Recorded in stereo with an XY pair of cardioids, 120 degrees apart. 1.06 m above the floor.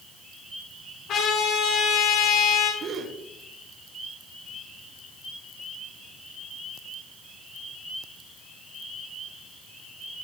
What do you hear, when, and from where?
1.1 s a trumpet: 60° left, 6 m
2.8 s a gasp: 55° right, 3 m